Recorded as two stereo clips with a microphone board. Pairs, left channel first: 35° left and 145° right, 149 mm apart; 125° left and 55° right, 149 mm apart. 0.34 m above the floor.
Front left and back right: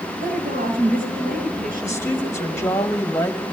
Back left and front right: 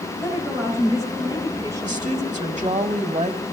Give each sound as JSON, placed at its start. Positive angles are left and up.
{"t": 0.2, "sound": "a woman speaking", "azimuth_deg": -125, "distance_m": 10.0}
{"t": 1.8, "sound": "a woman speaking", "azimuth_deg": -35, "distance_m": 2.0}